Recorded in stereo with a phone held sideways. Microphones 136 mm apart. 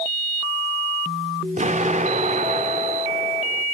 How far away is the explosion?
About 1.7 m.